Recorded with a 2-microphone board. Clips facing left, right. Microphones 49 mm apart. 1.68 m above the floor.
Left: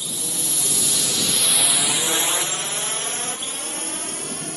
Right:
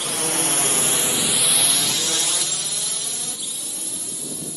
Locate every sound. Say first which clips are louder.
0.0 s a drone: right 7 dB; 65° right (ahead or behind); by 4.6 s 50° left (ahead or behind)